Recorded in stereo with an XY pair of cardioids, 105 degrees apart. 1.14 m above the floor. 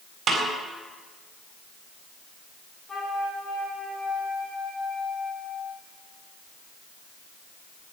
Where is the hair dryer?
I don't hear a hair dryer.